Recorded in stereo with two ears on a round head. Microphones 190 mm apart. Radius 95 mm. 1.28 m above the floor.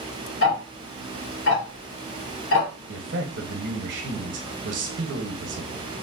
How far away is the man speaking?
About 0.9 m.